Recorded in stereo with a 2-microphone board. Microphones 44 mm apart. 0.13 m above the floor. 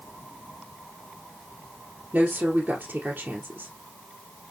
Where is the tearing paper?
I don't hear tearing paper.